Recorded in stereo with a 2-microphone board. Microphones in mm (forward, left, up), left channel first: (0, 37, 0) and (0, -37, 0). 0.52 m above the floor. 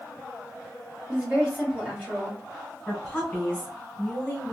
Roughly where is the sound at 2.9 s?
Centre.